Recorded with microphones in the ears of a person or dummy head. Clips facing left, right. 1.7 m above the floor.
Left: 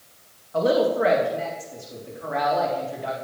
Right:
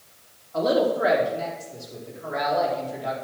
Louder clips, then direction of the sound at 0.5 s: Left 1 dB; 50° left (ahead or behind).